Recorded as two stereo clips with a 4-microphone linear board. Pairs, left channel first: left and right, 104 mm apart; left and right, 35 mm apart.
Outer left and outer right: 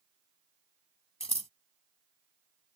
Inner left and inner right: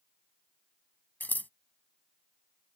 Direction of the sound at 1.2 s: 65° left (ahead or behind).